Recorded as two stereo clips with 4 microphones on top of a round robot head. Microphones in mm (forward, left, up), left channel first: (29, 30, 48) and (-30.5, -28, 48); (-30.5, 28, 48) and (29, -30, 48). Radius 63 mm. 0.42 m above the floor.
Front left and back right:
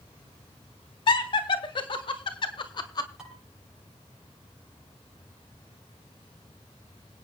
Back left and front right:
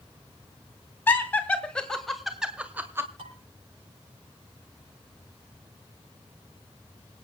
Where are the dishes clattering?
55° right, 7.5 m.